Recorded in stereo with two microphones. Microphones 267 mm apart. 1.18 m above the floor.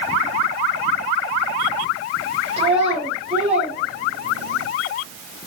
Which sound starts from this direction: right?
A child speaking, at 2.6 s.